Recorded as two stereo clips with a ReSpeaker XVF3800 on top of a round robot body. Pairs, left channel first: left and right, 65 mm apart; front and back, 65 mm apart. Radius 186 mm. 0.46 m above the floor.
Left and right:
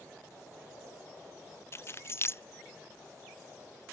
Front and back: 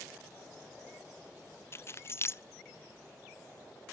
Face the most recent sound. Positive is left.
turn(degrees=45)